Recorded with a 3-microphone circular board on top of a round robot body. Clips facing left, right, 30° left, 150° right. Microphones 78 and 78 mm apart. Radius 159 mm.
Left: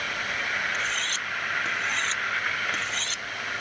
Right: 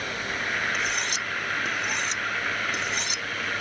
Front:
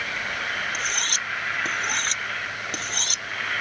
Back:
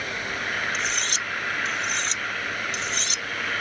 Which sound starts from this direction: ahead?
Cutlery clinking, at 0.7 s.